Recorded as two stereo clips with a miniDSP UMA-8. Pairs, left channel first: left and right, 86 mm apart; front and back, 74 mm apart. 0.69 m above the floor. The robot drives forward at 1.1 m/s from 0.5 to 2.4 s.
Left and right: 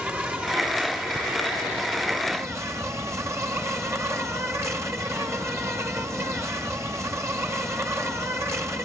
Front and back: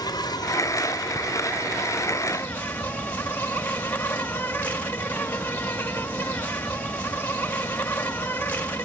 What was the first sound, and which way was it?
An insect, 20° right.